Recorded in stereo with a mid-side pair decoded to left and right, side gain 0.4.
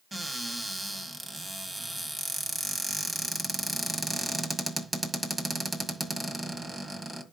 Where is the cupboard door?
25° right, 1.7 m.